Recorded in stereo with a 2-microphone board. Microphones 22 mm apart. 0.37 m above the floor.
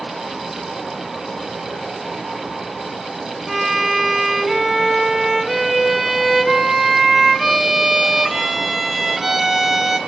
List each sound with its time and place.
3.5 s a violin: 10° right (ahead or behind), 2.5 m